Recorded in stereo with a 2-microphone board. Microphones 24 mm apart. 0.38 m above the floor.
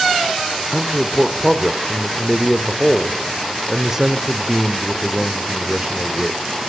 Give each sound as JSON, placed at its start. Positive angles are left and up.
{"t": 0.7, "sound": "a man speaking", "side_deg": -20, "distance_m": 1.2}